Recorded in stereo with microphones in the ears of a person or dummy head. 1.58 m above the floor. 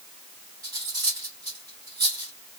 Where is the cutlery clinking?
20° right (ahead or behind), 1.4 m.